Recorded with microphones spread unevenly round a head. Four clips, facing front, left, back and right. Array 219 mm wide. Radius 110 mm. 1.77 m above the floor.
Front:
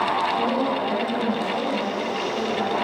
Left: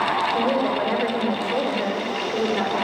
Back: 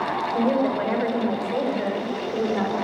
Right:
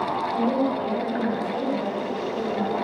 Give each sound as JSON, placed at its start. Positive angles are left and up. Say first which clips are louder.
{"t": 0.3, "sound": "a woman speaking", "louder": "left 2 dB, back 1 dB", "azimuth_deg": 120, "distance_m": 8.5}